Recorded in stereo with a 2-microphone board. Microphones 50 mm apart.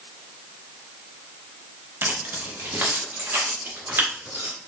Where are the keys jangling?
45° right (ahead or behind), 0.5 m; by 4.5 s 55° right (ahead or behind), 3.5 m.